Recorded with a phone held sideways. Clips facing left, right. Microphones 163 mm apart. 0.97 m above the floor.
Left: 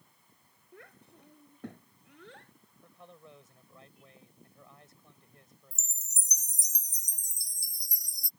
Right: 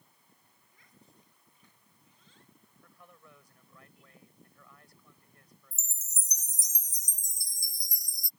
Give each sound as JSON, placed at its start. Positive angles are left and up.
{"t": 0.7, "sound": "a child speaking", "side_deg": 65}
{"t": 2.8, "sound": "a man speaking", "side_deg": 25}
{"t": 5.7, "sound": "a chime", "side_deg": 65}